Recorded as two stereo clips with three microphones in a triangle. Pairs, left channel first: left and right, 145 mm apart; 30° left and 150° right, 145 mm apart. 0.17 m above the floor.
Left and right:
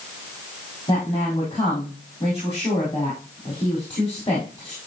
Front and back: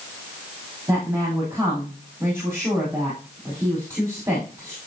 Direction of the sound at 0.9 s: 140° left.